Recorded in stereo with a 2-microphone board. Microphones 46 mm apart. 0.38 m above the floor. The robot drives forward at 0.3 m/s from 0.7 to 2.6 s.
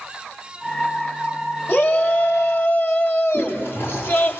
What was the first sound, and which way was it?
A shout, 50° left (ahead or behind).